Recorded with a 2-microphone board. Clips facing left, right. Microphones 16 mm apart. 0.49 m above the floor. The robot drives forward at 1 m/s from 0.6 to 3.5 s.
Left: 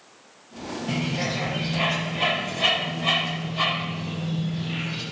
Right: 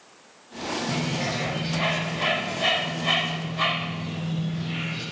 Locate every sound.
0.9 s a bird: 35° left (ahead or behind), 6.5 m; by 5.0 s 25° left (ahead or behind), 9 m